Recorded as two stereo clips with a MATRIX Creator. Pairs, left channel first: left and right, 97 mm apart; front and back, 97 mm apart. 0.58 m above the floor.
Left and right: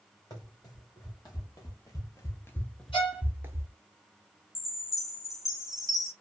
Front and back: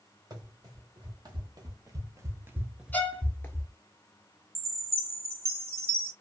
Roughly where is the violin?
Left.